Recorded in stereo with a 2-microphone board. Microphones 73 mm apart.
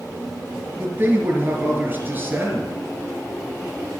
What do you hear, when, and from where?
0.8 s a man speaking: 25° right (ahead or behind), 2.5 m